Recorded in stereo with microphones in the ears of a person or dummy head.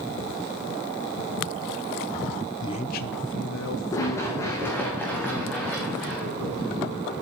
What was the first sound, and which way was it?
A man speaking, 20° left (ahead or behind).